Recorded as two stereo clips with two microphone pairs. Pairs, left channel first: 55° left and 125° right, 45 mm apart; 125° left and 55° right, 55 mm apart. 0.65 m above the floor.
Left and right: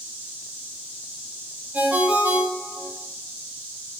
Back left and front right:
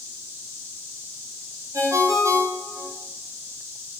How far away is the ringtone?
About 2.5 m.